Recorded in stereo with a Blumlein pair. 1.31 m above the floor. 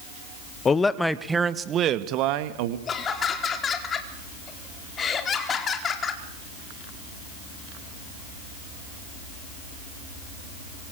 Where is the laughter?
20° left, 4 m.